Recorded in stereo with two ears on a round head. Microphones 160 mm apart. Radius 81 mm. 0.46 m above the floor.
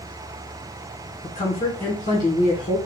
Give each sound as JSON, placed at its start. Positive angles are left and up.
{"t": 1.2, "sound": "a woman speaking", "side_deg": 40, "distance_m": 1.5}